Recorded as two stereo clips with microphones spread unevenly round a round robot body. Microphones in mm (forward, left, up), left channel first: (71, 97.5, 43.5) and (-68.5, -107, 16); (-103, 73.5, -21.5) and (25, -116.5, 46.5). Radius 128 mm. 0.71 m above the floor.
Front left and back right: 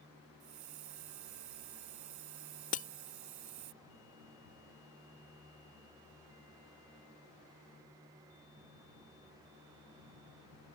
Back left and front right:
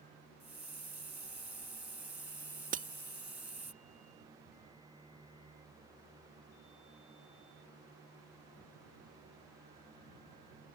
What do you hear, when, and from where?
0.4 s a hiss: 140° right
2.7 s breaking glass: straight ahead